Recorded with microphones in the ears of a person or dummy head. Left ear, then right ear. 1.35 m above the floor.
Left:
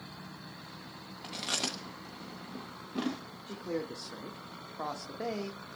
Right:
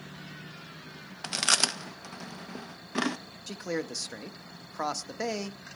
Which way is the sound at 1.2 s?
50° right (ahead or behind).